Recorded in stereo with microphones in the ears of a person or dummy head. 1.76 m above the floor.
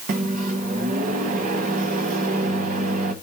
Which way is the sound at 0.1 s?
40° right (ahead or behind).